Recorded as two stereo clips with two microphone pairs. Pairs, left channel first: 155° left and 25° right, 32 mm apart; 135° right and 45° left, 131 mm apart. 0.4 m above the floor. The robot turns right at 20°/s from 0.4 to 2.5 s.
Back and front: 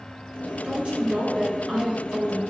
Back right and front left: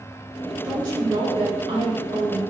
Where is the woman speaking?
5° right, 1.4 m; by 2.4 s 30° left, 1.4 m.